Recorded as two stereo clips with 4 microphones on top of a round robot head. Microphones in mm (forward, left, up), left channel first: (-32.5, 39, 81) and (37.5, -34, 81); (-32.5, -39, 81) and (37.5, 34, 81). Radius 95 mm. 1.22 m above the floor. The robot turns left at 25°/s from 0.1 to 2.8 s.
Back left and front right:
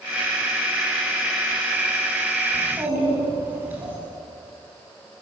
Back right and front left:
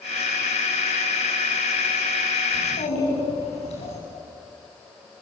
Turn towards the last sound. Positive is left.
turn(degrees=-120)